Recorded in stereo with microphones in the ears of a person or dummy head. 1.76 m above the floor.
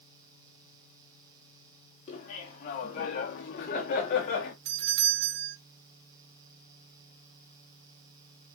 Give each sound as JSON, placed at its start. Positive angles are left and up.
{"t": 2.1, "sound": "laughter", "side_deg": 35, "distance_m": 4.5}
{"t": 4.7, "sound": "a doorbell", "side_deg": -65, "distance_m": 1.8}